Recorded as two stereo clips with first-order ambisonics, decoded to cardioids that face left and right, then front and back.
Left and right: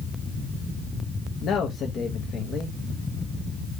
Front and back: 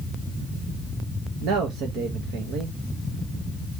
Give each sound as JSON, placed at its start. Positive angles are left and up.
{"t": 1.4, "sound": "a man speaking", "azimuth_deg": 145, "distance_m": 0.9}